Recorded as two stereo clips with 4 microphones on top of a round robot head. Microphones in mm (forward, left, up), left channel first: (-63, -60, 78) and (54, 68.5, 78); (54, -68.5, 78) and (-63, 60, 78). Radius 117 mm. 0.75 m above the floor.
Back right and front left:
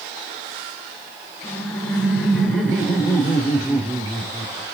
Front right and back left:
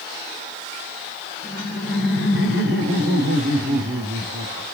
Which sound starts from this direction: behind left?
Laughter, at 1.4 s.